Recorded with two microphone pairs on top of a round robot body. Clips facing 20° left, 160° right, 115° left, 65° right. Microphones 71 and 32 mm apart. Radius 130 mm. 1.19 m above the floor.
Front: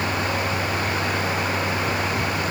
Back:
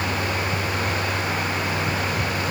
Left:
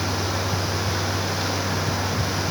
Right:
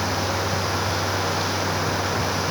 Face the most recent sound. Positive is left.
No sound to turn to.